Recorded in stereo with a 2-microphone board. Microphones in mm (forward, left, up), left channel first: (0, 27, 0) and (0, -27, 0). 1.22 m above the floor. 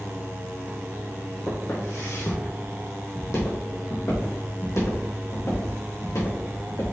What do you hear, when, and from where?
1.5 s footsteps: 55° left (ahead or behind), 2.5 m; by 6.8 s 75° left (ahead or behind), 5.5 m